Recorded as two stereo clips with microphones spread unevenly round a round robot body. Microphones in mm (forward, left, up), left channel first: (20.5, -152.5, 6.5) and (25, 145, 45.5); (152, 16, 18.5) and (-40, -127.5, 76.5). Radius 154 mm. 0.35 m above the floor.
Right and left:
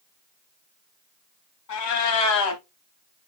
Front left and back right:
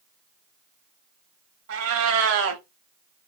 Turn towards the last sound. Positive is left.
turn(degrees=-115)